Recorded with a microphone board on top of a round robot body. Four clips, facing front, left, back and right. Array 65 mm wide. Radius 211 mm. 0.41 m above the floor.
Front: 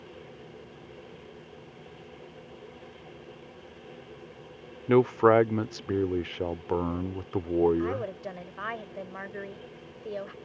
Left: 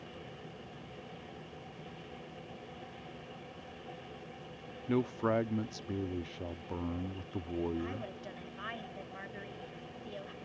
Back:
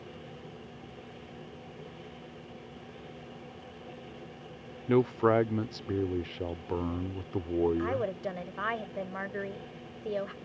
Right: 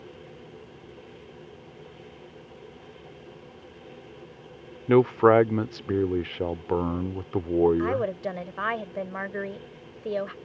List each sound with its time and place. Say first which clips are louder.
4.9 s a man speaking: right 14 dB, front 5 dB; 60° right
7.8 s a woman speaking: right 14 dB, even; 95° right